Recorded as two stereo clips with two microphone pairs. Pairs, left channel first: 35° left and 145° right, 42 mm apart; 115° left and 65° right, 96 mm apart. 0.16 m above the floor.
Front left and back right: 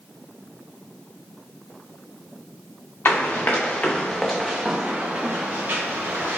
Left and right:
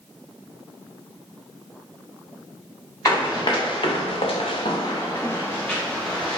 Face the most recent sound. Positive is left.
turn(degrees=-165)